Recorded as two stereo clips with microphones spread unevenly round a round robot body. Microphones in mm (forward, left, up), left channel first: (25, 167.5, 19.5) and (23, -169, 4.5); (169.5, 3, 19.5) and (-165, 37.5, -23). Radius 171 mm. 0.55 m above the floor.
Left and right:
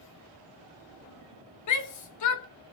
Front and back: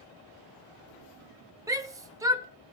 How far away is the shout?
About 1.2 m.